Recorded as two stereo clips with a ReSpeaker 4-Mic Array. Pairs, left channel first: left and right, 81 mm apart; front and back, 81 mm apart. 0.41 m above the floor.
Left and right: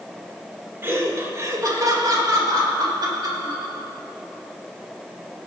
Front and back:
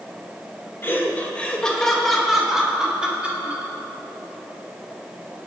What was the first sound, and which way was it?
Laughter, 45° right.